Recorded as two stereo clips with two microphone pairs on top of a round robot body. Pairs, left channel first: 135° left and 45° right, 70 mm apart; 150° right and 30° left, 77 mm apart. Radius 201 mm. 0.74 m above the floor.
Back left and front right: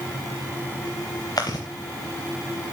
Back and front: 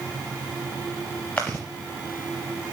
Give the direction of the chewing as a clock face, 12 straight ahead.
7 o'clock.